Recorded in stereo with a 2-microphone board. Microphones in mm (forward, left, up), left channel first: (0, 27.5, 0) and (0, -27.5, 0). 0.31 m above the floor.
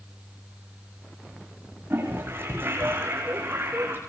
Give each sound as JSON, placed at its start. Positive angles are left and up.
{"t": 1.9, "sound": "a toilet flushing", "side_deg": -40, "distance_m": 8.0}